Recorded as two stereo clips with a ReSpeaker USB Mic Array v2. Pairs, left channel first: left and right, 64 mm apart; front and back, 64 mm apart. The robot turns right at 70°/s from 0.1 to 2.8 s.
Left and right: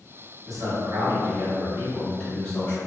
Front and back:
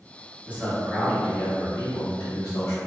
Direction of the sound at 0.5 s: 125° right.